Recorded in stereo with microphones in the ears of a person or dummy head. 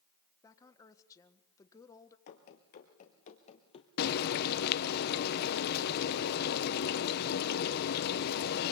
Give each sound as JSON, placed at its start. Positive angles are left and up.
{"t": 0.4, "sound": "a woman speaking", "side_deg": 20, "distance_m": 1.5}
{"t": 2.3, "sound": "running footsteps", "side_deg": 50, "distance_m": 2.0}
{"t": 4.0, "sound": "frying", "side_deg": 60, "distance_m": 1.0}